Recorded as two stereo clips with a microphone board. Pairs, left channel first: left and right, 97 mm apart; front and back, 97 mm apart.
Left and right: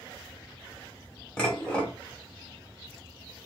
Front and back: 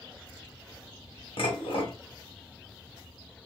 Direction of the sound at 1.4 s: 10° left.